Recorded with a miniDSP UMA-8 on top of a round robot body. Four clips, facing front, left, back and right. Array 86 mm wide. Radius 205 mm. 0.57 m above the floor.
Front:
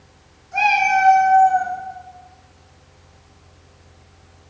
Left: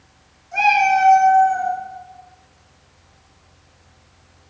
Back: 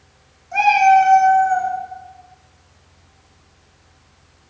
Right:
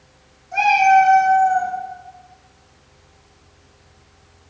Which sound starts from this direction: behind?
A cat meowing, at 0.5 s.